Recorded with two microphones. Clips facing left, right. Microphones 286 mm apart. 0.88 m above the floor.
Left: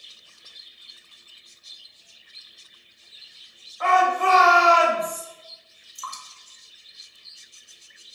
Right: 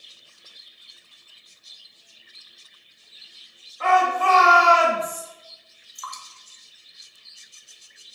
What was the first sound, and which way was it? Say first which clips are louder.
A shout: even; 30° right (ahead or behind).